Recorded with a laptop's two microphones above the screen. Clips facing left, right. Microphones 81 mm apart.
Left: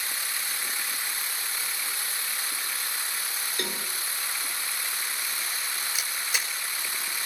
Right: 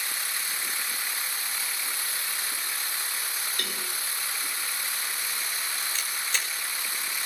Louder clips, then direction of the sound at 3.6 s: Left 2 dB; 25° left (ahead or behind).